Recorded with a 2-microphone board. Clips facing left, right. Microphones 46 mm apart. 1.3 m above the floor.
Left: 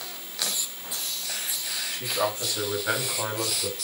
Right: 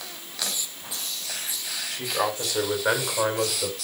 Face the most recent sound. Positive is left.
turn(degrees=-80)